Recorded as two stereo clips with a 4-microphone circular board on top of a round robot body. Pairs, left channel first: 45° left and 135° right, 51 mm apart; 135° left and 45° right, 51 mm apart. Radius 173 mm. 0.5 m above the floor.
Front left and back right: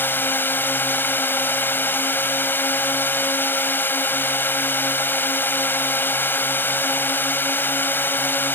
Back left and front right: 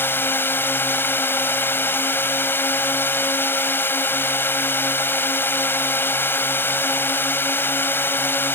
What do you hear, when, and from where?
0.0 s a drone: 90° left